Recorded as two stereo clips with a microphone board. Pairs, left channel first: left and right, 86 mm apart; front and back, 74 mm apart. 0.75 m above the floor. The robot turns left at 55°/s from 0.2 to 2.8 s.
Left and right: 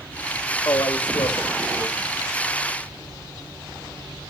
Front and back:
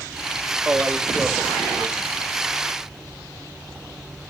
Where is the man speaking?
125° left, 1.4 m; by 2.1 s 45° left, 1.4 m.